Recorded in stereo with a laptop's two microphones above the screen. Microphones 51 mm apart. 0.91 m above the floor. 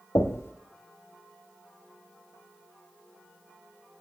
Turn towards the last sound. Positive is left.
turn(degrees=60)  # may be behind; listen again after turning